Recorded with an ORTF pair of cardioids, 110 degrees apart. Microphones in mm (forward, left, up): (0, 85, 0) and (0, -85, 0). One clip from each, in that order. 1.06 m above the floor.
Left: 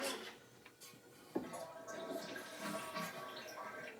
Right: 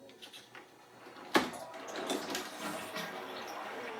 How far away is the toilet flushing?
About 2.5 m.